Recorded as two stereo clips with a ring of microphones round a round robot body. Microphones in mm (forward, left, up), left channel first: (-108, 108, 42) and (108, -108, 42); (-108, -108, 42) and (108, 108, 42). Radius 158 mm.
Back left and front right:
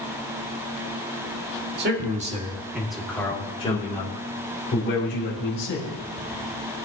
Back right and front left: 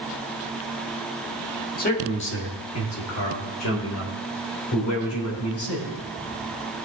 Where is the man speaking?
85° right, 1.9 m; by 5.9 s straight behind, 4 m.